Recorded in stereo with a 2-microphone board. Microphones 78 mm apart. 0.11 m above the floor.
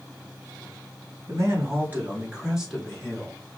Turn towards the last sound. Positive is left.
turn(degrees=15)  # may be behind; listen again after turning